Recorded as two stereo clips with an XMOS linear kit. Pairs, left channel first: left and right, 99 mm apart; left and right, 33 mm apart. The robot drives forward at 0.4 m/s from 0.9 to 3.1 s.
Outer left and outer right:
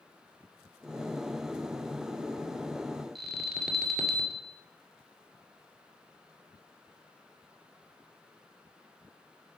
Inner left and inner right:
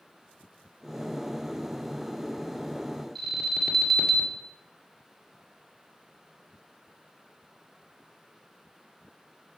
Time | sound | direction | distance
3.1 | an alarm | centre (ahead or behind) | 1.8 m